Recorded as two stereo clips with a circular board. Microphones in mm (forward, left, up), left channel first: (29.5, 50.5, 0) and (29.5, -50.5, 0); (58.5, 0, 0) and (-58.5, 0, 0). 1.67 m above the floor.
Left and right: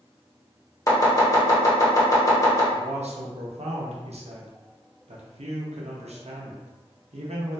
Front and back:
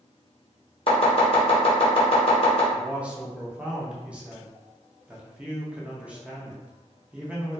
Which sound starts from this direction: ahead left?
Chopping, at 0.9 s.